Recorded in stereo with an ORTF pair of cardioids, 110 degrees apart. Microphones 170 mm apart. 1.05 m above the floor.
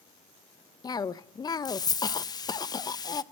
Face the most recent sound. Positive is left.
turn(degrees=25)